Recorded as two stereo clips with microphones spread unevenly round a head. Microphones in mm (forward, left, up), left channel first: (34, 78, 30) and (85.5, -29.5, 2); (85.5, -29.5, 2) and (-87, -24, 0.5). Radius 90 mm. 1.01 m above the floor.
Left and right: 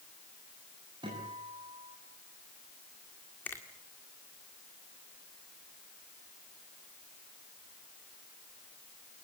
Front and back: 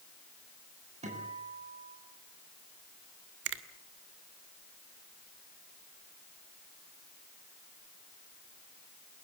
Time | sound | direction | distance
1.0 | a guitar | 130° right | 9 m
3.5 | a finger snap | 165° right | 1.7 m